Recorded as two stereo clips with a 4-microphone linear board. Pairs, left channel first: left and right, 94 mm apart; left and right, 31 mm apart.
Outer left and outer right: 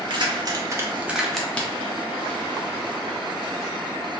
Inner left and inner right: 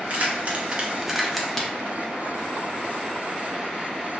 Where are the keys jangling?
50° right (ahead or behind), 0.7 m; by 1.7 s 15° left (ahead or behind), 0.6 m.